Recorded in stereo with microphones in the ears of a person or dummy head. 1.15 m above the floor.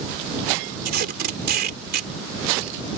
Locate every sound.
0.8 s tape being pulled: 55° right (ahead or behind)